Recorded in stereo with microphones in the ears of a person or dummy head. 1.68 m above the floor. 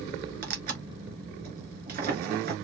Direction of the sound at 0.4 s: 50° right (ahead or behind).